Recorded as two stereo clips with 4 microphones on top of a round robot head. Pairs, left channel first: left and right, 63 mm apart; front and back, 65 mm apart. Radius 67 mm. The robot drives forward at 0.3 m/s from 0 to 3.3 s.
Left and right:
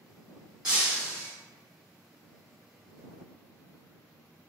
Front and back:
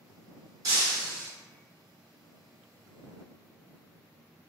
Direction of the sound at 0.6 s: 170° right.